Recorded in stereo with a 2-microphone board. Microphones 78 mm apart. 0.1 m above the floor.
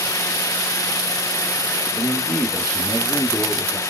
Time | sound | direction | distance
1.9 | a man speaking | 15° left (ahead or behind) | 1.3 m